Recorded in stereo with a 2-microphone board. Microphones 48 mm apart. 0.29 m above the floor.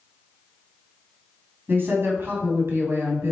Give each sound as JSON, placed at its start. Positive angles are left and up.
{"t": 1.7, "sound": "a woman speaking", "side_deg": -50, "distance_m": 2.5}